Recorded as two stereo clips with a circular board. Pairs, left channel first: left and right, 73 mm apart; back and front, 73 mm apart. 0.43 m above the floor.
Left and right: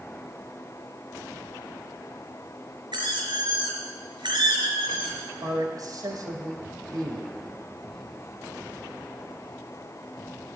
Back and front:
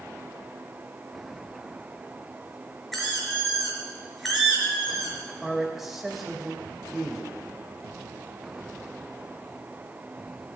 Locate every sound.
2.9 s a squeak: 90° right, 4 m
5.4 s a man speaking: 85° right, 2.5 m